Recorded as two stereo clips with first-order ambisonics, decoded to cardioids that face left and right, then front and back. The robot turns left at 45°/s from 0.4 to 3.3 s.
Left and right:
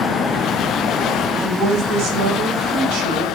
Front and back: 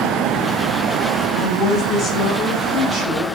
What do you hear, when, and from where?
1.4 s a woman speaking: 35° right, 3 m; by 3.4 s 120° right, 3 m